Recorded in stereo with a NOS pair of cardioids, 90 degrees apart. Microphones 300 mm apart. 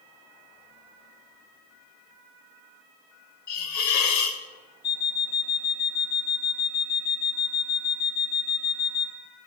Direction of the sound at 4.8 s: 55° left.